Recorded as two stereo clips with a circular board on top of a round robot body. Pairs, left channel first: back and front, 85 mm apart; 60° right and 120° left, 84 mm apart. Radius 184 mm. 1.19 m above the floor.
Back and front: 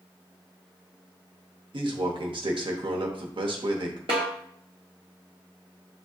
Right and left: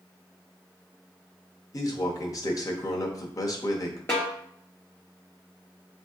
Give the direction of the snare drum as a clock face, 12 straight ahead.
12 o'clock.